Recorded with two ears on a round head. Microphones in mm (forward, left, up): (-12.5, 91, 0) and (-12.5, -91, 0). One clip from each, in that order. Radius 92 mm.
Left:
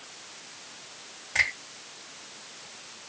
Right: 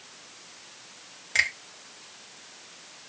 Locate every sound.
1.4 s a finger snap: 40° right (ahead or behind), 1.6 m